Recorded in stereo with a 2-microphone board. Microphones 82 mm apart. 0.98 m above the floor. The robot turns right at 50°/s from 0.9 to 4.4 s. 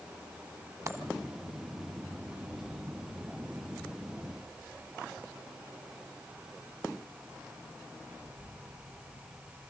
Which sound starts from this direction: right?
A dropped coin, at 0.9 s.